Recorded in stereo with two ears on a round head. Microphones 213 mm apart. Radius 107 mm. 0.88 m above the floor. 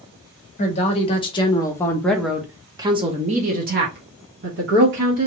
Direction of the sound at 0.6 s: 30° left (ahead or behind).